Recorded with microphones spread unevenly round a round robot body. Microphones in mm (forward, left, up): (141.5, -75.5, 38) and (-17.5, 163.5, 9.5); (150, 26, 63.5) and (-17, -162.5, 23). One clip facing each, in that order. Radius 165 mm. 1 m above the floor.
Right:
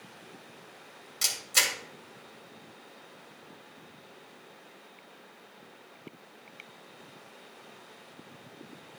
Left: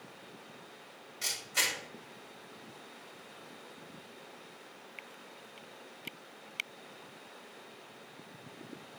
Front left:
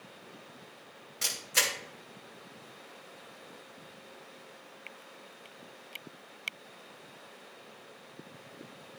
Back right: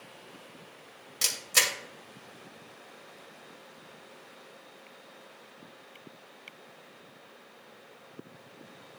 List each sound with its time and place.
1.2 s a camera shutter: 100° right, 2.5 m